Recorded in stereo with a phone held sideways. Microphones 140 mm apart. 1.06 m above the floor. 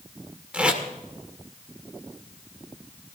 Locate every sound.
0.5 s tape being pulled: 5° right (ahead or behind), 2.5 m